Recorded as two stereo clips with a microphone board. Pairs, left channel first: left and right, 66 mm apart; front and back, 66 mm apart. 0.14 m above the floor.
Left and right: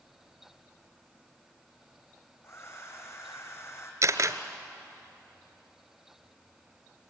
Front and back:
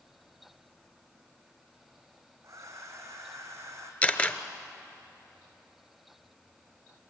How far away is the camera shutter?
About 1.1 m.